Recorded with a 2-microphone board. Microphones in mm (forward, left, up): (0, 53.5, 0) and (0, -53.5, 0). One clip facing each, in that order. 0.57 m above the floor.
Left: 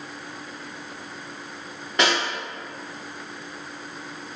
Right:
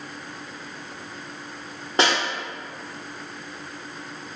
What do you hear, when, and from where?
2.0 s a snare drum: 30° right (ahead or behind), 1.6 m